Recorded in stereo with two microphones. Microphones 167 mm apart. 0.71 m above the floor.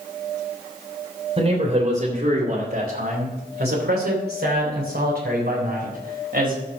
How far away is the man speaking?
About 2.5 m.